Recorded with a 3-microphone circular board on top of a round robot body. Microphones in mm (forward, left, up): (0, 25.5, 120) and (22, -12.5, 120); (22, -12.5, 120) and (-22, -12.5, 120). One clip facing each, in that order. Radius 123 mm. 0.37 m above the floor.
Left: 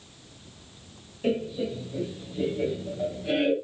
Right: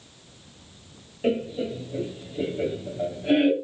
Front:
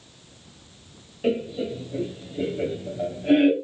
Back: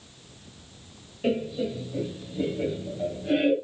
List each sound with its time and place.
1.2 s laughter: 70° right, 0.9 m; by 3.5 s straight ahead, 1.5 m